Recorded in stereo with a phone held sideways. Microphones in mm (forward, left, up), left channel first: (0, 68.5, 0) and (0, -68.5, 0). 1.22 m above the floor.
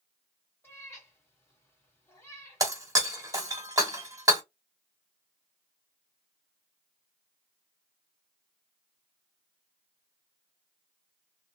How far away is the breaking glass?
About 1.0 m.